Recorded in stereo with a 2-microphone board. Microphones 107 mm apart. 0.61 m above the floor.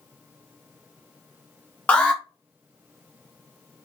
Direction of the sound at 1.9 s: 15° left (ahead or behind).